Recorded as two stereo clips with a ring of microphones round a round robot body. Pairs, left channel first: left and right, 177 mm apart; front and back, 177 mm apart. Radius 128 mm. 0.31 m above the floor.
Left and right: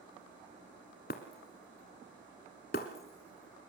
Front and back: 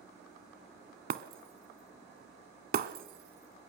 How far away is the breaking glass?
About 1.0 m.